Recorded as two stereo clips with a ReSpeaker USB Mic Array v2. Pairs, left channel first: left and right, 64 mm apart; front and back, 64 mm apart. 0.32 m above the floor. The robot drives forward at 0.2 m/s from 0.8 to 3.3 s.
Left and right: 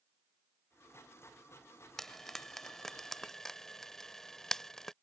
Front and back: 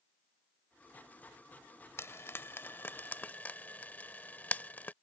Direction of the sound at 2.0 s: 10° left.